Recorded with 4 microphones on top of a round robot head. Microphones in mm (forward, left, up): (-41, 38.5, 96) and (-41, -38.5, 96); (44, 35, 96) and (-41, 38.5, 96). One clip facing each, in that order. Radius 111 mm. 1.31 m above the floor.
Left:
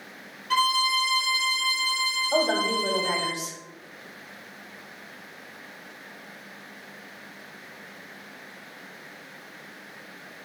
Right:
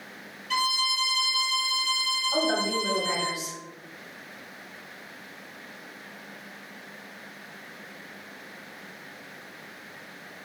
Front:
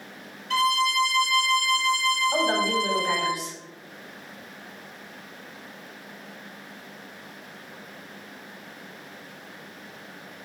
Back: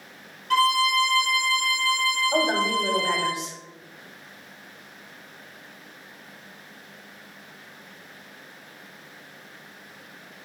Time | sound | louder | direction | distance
0.5 | a violin | left 5 dB, back 2 dB | 140° left | 0.6 m
2.3 | a woman speaking | left 3 dB, back 1 dB | 115° left | 1.1 m